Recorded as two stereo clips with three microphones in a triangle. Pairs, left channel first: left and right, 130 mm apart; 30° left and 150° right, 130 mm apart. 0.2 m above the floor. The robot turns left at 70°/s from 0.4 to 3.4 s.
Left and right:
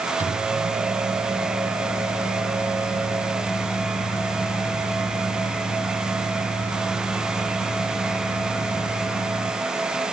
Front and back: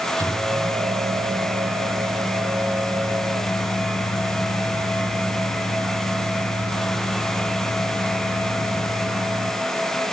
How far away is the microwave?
About 2.5 m.